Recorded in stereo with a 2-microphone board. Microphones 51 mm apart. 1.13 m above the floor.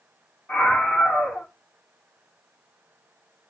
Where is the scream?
35° left (ahead or behind), 1.6 m.